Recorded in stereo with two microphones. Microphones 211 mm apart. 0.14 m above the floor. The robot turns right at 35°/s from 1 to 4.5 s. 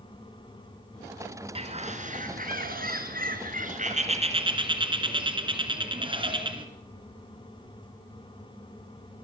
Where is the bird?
140° right, 2 m; by 6.7 s 35° right, 2 m.